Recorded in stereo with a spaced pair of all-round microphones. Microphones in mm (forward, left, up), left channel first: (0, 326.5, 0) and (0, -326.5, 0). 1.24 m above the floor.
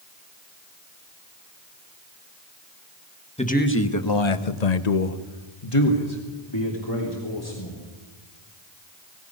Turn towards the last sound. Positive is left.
turn(degrees=35)  # may be behind; listen again after turning